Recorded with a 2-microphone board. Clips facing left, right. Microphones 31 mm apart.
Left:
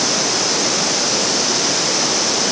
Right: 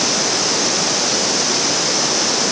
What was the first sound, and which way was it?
Only background noise.